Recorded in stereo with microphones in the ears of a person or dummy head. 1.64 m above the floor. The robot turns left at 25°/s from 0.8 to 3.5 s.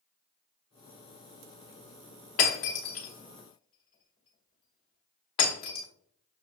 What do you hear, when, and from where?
2.4 s breaking glass: 45° left (ahead or behind), 1.1 m; by 5.9 s 30° left (ahead or behind), 1.1 m